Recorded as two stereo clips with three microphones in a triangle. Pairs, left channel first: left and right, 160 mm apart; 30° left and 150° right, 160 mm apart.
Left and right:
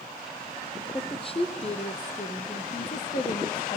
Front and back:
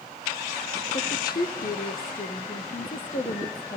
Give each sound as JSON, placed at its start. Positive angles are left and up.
{"t": 0.9, "sound": "a woman speaking", "azimuth_deg": 35, "distance_m": 3.0}